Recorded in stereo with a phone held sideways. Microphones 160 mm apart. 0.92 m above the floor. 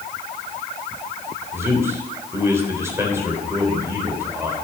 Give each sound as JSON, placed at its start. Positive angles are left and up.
{"t": 1.5, "sound": "a man speaking", "side_deg": -15, "distance_m": 3.5}